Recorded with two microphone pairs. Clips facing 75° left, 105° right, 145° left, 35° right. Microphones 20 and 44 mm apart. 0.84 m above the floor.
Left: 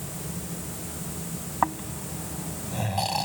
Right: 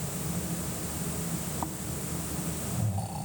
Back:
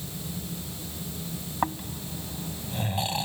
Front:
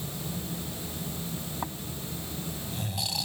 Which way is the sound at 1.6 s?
90° left.